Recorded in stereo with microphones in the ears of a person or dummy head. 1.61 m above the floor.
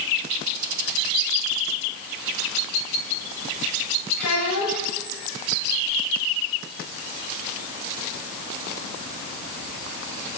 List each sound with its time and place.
4.2 s a child speaking: 45° left (ahead or behind), 4 m